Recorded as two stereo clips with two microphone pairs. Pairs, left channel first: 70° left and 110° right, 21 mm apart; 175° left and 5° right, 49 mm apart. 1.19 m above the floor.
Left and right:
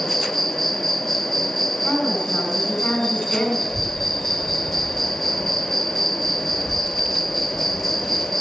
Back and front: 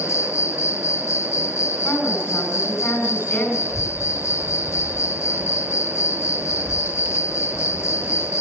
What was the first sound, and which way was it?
An insect, 155° left.